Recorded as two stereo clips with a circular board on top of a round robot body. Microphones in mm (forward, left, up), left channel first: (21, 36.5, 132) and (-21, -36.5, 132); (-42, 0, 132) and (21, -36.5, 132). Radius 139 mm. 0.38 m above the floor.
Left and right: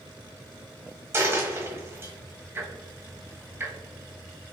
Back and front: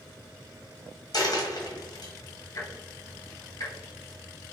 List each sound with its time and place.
1.1 s a dropped coin: straight behind, 1.3 m
2.5 s ticking: straight behind, 0.8 m